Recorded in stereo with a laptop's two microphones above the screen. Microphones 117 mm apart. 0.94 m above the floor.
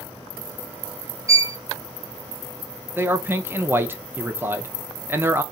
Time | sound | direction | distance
1.3 | a violin | 30° right (ahead or behind) | 0.9 m
3.0 | a man speaking | 20° right (ahead or behind) | 0.5 m